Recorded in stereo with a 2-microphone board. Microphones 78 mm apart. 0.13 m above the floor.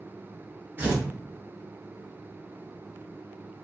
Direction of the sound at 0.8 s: 25° right (ahead or behind).